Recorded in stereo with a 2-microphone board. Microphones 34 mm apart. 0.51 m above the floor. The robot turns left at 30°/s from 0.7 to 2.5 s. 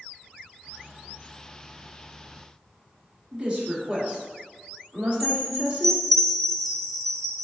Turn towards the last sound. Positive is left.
turn(degrees=5)  # may be behind; listen again after turning